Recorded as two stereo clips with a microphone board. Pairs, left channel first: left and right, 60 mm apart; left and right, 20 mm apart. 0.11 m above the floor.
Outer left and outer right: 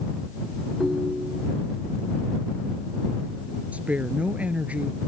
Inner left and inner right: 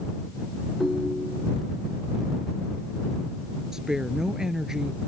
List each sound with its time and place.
0.8 s a ringtone: 5° right (ahead or behind)
3.7 s a woman speaking: 25° right (ahead or behind)